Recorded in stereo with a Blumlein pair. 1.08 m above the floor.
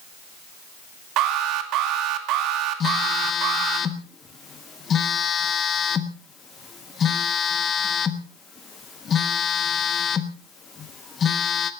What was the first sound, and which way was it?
An alarm, 35° right.